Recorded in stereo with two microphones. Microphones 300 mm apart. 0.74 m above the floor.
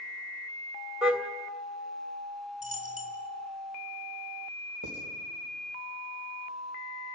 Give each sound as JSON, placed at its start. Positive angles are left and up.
{"t": 1.0, "sound": "a car horn", "side_deg": -5, "distance_m": 2.0}
{"t": 2.6, "sound": "a dropped coin", "side_deg": -25, "distance_m": 3.0}
{"t": 4.8, "sound": "writing", "side_deg": -75, "distance_m": 3.5}